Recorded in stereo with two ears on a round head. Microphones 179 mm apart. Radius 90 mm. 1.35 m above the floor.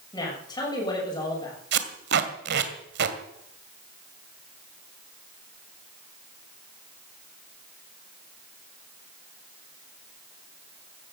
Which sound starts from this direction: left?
A woman speaking, at 0.1 s.